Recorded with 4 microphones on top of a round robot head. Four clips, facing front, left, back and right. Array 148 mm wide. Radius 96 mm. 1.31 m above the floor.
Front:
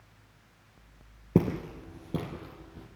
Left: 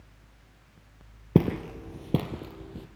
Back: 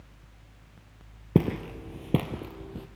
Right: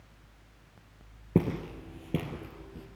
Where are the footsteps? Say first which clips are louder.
Left 4 dB, back 2 dB; 110° left, 1.3 m; by 2.9 s 160° left, 2 m.